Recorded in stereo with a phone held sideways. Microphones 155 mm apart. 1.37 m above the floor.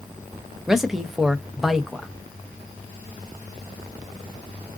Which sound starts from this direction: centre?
A man speaking, at 0.7 s.